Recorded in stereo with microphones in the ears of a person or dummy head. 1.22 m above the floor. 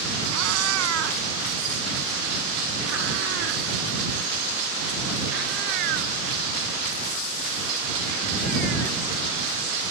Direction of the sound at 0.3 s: 80° right.